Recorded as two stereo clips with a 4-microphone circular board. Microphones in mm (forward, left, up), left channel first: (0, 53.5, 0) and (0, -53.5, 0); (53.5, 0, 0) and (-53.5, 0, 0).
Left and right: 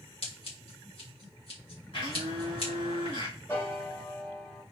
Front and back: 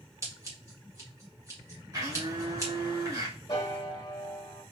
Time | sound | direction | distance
0.2 | scissors | 120° left | 1.7 m
1.9 | a blender | 125° left | 2 m
3.5 | a piano | 30° left | 1.5 m